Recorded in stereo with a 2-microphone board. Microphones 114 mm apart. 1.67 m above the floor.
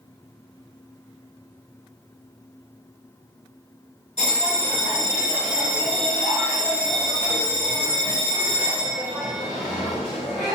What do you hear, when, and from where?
4.2 s a bell: 70° left (ahead or behind), 2 m